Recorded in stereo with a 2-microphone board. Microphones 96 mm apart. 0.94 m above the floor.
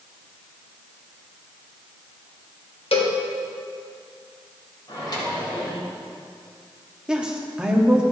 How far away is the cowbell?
About 1.2 m.